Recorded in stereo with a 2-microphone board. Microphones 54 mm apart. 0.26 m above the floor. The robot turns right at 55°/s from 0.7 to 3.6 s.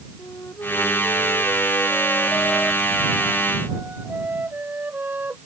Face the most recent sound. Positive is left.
turn(degrees=-145)